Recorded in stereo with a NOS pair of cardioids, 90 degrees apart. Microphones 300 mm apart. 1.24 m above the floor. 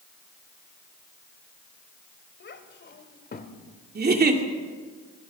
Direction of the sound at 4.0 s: 30° right.